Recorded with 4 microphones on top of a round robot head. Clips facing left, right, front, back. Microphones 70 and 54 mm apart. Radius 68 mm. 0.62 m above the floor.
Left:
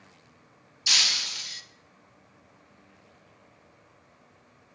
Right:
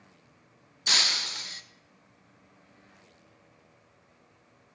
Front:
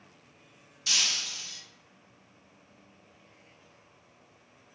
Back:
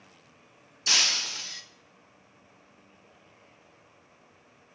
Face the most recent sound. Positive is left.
turn(degrees=-140)